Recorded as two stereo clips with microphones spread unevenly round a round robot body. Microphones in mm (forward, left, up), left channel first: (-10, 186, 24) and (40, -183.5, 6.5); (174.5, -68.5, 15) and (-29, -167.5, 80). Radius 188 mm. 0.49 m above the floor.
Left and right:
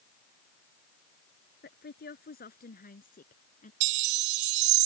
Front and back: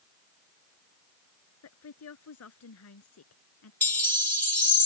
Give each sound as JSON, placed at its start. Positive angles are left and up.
{"t": 1.6, "sound": "a woman speaking", "azimuth_deg": 30}
{"t": 3.8, "sound": "a chime", "azimuth_deg": -55}